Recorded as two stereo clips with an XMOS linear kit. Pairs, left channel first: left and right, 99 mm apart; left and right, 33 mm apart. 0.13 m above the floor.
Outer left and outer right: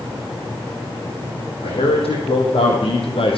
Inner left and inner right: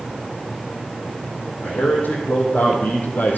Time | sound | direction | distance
1.6 | a man speaking | 80° left | 5.5 m